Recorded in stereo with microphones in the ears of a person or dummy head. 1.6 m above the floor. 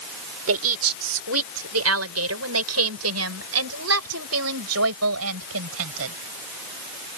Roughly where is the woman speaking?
Right.